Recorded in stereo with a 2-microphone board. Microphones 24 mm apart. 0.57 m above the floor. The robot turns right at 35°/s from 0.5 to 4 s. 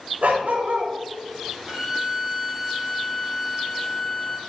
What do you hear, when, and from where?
0.2 s a dog barking: 75° right (ahead or behind), 0.6 m
1.7 s a violin: 25° right, 1.6 m; by 4.4 s 55° left, 1.6 m